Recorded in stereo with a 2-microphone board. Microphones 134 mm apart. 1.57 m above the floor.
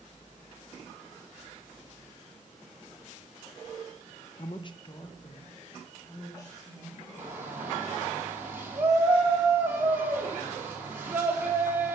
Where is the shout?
15° right (ahead or behind), 3.5 m.